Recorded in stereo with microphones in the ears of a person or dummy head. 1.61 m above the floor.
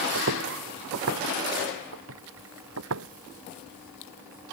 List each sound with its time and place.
0.1 s footsteps: 65° right (ahead or behind); by 3.1 s 80° right